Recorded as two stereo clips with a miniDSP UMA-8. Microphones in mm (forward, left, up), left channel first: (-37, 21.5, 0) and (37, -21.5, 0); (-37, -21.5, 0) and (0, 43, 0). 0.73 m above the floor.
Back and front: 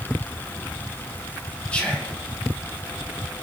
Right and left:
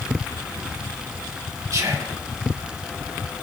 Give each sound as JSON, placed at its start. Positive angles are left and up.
{"t": 1.7, "sound": "whispering", "azimuth_deg": 80, "distance_m": 1.4}